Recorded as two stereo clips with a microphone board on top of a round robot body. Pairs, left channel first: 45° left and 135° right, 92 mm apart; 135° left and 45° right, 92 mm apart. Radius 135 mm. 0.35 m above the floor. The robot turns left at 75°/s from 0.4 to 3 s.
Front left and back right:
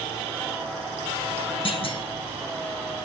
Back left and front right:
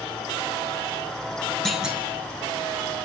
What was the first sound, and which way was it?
A clunk, 50° left.